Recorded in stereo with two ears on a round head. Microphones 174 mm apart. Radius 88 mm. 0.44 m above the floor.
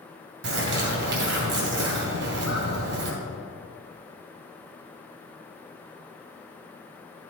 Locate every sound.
0.4 s a bird: 65° right (ahead or behind), 2 m